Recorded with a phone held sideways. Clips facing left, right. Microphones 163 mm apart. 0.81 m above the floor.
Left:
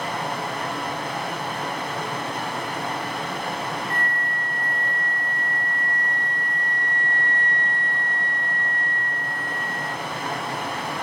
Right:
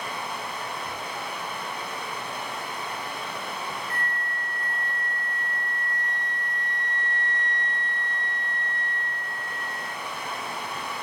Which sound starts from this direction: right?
A flute, at 3.9 s.